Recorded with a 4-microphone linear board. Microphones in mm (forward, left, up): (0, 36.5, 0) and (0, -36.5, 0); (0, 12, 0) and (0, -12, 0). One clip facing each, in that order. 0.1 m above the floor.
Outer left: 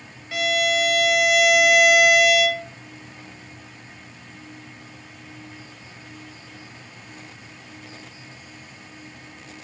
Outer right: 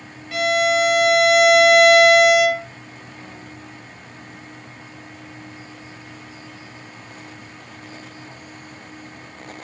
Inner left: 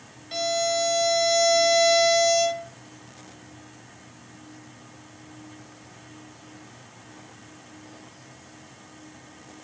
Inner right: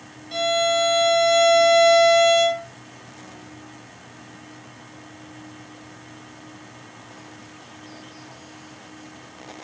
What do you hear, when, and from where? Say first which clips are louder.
0.3 s a violin: outer right 4 dB, inner right 5 dB; 5° left (ahead or behind), 1.4 m